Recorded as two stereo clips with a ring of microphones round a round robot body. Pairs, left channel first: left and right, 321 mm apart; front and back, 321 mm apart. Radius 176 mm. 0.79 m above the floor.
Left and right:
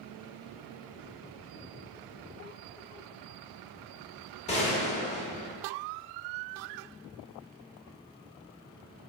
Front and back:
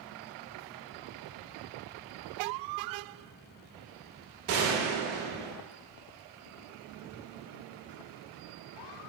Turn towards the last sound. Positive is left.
turn(degrees=155)